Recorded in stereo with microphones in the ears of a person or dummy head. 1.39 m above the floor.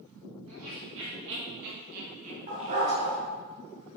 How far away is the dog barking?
About 2.5 m.